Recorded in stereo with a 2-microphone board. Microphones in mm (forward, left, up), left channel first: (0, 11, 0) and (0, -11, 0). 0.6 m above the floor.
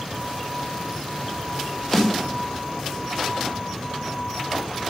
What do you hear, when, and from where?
1.9 s a snare drum: 5° left (ahead or behind), 2.5 m